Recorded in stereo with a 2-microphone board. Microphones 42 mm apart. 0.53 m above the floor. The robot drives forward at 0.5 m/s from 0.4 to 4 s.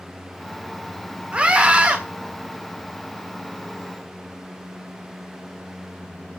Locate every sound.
1.3 s a scream: 25° right (ahead or behind), 1.7 m; by 2.0 s 20° right (ahead or behind), 1.9 m